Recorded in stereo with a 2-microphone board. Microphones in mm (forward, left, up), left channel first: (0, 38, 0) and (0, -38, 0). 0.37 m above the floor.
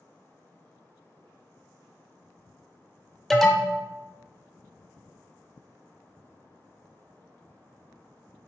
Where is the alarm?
Centre (ahead or behind), 0.5 m.